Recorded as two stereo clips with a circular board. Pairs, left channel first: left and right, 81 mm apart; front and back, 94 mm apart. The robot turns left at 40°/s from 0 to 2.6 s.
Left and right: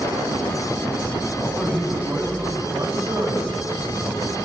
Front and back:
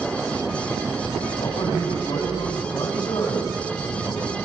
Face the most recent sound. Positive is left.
turn(degrees=-45)